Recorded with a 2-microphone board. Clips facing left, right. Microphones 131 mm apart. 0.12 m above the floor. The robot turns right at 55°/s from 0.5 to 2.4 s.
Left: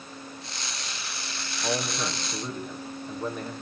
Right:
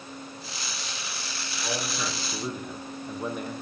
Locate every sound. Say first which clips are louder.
1.6 s a man speaking: left 3 dB; 150° left, 4.5 m; by 3.5 s 170° right, 4.5 m